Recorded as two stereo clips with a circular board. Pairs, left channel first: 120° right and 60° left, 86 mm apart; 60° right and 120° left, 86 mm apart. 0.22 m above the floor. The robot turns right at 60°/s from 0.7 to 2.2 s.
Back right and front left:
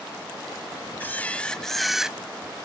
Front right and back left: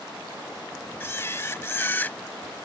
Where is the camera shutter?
85° right; by 2.2 s 10° right.